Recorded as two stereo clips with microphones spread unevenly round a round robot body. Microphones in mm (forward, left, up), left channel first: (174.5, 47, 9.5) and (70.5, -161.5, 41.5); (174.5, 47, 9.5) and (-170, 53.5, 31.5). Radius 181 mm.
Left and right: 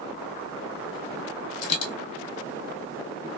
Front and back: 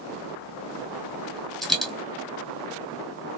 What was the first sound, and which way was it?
A dropped coin, 90° left.